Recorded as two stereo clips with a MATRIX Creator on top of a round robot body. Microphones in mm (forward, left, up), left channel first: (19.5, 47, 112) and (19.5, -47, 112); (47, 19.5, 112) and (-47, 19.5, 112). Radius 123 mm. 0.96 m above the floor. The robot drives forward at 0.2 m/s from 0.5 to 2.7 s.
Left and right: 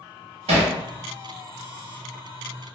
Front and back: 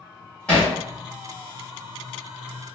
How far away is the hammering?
About 1.0 m.